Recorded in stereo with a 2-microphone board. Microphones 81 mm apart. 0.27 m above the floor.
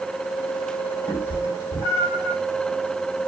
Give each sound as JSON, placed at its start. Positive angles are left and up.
{"t": 1.1, "sound": "a cat meowing", "side_deg": 25, "distance_m": 3.0}